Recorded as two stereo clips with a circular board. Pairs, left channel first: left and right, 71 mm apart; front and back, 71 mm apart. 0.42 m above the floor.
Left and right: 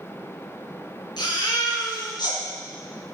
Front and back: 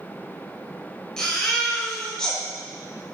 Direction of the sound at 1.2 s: 80° left.